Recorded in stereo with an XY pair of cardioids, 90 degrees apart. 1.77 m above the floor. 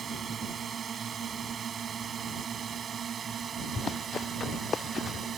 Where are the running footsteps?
45° left.